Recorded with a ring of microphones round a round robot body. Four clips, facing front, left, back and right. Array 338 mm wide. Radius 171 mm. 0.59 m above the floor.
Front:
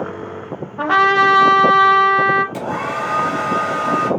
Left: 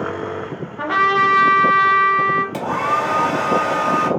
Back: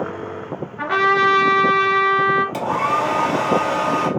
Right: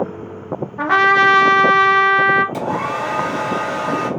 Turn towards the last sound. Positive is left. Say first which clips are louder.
# left 1 dB, back 3 dB
turn(degrees=130)